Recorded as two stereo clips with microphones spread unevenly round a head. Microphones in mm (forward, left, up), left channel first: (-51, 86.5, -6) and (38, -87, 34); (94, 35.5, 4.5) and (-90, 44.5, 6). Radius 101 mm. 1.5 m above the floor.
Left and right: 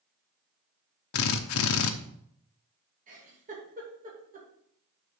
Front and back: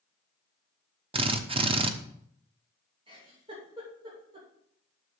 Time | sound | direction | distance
1.1 | a drill | 115° left | 0.9 m
3.1 | a giggle | 115° right | 2.5 m